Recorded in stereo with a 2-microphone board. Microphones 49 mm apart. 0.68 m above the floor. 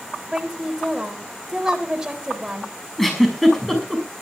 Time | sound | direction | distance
0.3 | a woman speaking | 15° right (ahead or behind) | 3.5 m
3.0 | a giggle | 5° left (ahead or behind) | 6 m